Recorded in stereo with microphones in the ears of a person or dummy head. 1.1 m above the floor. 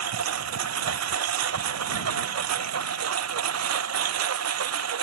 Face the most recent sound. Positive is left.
turn(degrees=-90)